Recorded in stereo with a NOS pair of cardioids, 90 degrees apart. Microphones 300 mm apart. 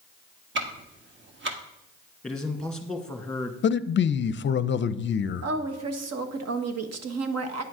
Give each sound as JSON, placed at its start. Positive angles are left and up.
{"t": 0.6, "sound": "ticking", "azimuth_deg": -40, "distance_m": 1.5}
{"t": 2.2, "sound": "a man speaking", "azimuth_deg": 5, "distance_m": 1.9}
{"t": 3.6, "sound": "a man speaking", "azimuth_deg": 40, "distance_m": 0.6}
{"t": 5.4, "sound": "a woman speaking", "azimuth_deg": -55, "distance_m": 1.3}